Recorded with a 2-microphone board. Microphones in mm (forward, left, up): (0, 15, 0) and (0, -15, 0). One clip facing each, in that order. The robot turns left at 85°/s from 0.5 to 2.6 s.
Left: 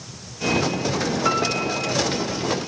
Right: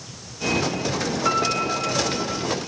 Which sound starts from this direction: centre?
A piano, at 1.2 s.